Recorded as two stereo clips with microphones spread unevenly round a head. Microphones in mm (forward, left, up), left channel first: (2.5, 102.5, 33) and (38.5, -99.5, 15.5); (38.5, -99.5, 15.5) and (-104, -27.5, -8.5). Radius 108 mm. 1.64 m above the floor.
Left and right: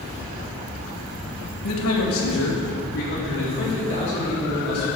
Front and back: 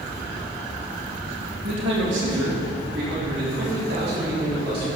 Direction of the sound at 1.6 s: 110° left.